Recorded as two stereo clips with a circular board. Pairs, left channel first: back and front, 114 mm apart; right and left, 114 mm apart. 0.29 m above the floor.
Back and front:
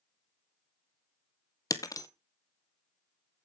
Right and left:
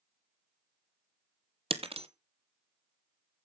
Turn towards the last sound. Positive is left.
turn(degrees=120)